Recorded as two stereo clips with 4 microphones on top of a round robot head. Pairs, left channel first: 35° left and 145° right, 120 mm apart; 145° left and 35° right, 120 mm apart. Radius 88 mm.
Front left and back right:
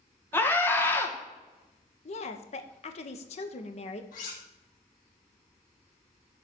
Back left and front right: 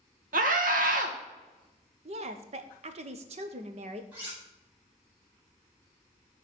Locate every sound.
0.3 s a scream: 35° right, 1.5 m
2.0 s a woman speaking: straight ahead, 1.0 m
4.1 s cutlery clinking: 40° left, 4 m